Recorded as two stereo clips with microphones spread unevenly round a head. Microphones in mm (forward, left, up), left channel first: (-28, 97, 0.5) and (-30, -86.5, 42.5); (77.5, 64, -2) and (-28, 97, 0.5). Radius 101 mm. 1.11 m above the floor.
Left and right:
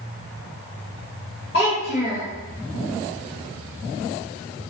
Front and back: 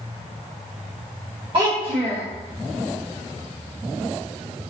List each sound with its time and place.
1.5 s a child speaking: 130° left, 0.7 m